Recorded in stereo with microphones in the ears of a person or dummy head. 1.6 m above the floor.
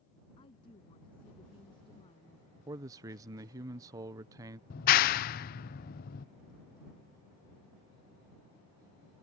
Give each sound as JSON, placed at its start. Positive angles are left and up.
{"t": 0.4, "sound": "a woman speaking", "side_deg": 30}
{"t": 2.7, "sound": "a man speaking", "side_deg": -15}
{"t": 4.7, "sound": "a clap", "side_deg": 45}